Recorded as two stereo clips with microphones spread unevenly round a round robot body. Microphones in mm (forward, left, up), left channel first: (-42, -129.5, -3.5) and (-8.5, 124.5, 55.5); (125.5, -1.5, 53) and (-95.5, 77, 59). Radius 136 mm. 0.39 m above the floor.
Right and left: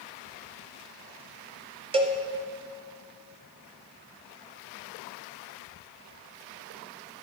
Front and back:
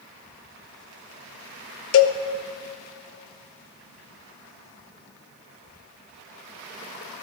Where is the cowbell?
10° left, 0.7 m.